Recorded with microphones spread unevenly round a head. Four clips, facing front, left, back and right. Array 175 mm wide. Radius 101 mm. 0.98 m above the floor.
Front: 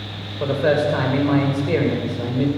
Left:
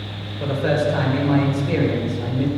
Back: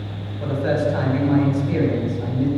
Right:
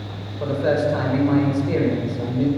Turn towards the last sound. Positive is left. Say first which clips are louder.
# even, front 3 dB
turn(degrees=0)